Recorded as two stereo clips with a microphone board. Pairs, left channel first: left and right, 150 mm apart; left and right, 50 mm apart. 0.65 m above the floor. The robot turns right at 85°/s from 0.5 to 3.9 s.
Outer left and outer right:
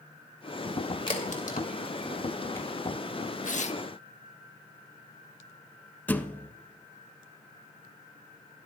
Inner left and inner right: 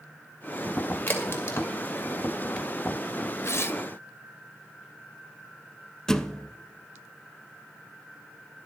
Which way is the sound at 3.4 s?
95° left.